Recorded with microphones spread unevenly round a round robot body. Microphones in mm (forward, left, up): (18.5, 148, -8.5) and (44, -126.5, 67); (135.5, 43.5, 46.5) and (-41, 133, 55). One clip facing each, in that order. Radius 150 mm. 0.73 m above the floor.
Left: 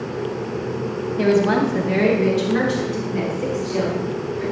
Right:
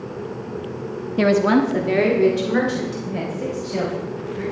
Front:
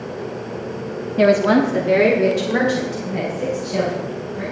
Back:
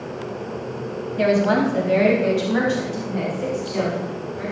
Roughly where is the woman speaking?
Right.